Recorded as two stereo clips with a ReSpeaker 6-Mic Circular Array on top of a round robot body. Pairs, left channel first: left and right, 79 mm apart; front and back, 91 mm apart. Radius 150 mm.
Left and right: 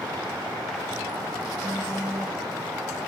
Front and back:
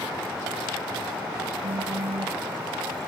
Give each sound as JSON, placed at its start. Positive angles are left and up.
{"t": 1.6, "sound": "a phone buzzing", "azimuth_deg": -170}